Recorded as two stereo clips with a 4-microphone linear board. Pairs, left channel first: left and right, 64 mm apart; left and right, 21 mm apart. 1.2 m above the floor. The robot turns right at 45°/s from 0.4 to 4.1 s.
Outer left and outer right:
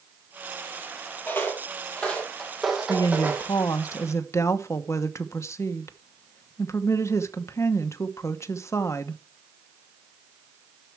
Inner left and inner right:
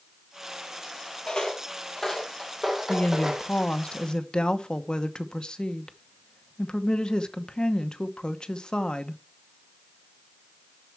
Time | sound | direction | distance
1.3 | footsteps | 30° left (ahead or behind) | 1.5 m
2.9 | a woman speaking | 75° left | 0.9 m